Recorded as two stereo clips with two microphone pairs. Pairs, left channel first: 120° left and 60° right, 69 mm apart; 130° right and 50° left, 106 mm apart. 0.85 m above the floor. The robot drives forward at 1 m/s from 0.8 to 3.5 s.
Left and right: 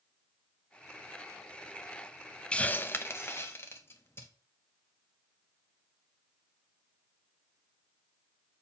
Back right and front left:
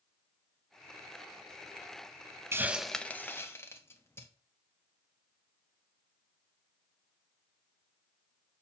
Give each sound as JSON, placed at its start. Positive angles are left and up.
{"t": 2.5, "sound": "a hiss", "azimuth_deg": 65, "distance_m": 0.5}